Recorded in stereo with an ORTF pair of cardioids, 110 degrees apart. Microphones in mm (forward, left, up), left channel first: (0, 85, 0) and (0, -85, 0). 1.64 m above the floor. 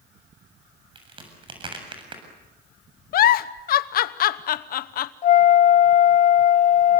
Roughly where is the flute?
Ahead left.